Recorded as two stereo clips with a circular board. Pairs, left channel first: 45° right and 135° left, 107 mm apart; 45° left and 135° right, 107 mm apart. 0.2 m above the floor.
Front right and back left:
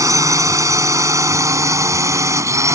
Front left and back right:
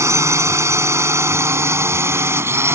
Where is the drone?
175° left.